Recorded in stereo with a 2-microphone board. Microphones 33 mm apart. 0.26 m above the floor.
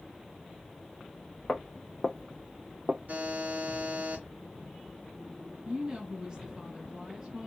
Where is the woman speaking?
20° right (ahead or behind), 1.9 m.